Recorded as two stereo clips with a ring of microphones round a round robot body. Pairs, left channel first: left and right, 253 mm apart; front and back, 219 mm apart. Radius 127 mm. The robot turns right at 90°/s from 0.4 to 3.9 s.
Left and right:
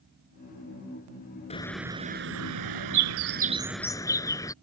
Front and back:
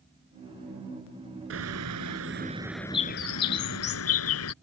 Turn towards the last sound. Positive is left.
turn(degrees=10)